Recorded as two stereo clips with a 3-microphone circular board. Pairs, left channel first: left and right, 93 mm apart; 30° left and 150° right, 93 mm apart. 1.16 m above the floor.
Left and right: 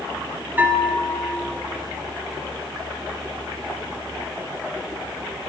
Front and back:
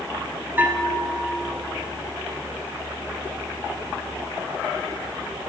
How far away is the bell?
About 0.7 m.